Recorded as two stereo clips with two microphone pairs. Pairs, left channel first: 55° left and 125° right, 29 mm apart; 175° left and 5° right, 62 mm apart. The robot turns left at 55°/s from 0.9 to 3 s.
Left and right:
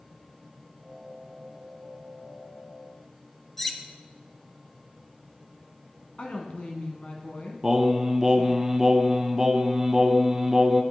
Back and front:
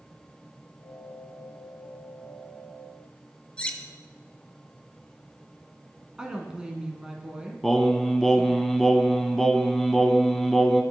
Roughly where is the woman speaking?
Ahead left.